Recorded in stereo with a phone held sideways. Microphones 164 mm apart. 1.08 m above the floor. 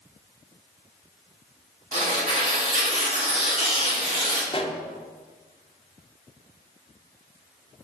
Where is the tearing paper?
50° right (ahead or behind), 2.5 m.